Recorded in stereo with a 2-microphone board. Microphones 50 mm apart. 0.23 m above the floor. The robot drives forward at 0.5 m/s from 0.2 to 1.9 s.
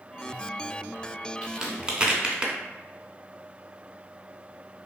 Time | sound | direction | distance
1.4 | a crack | 15° right (ahead or behind) | 0.7 m